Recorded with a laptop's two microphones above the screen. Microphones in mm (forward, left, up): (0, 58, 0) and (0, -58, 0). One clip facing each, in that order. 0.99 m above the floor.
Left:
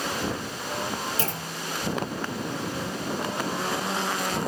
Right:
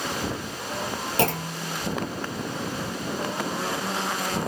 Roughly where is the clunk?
Right.